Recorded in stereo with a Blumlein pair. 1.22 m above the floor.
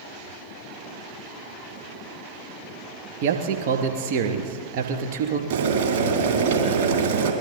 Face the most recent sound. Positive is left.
turn(degrees=-60)